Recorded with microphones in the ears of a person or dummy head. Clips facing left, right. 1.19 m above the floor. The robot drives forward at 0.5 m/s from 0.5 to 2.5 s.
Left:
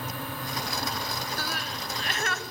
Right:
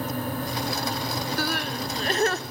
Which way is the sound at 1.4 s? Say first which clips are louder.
Right 7 dB; 55° right (ahead or behind).